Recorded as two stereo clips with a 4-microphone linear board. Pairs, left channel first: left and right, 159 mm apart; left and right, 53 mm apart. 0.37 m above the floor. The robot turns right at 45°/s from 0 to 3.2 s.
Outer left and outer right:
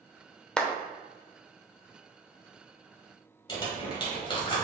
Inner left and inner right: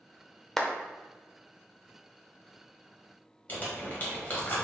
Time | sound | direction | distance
0.6 | a clap | 5° left (ahead or behind) | 0.6 m
3.5 | crumpling | 30° left (ahead or behind) | 1.5 m